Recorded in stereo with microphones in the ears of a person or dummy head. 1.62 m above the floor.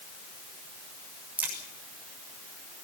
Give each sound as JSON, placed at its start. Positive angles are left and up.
{"t": 1.4, "sound": "a crack", "side_deg": -5, "distance_m": 7.0}